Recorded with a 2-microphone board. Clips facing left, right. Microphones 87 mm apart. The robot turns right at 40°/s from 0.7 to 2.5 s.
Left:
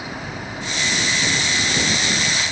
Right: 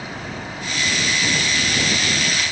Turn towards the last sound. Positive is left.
No sound to turn to.